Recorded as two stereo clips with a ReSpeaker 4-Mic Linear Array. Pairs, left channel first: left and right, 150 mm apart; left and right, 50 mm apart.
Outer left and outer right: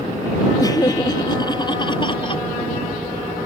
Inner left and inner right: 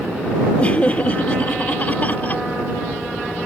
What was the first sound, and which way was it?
Laughter, 25° left (ahead or behind).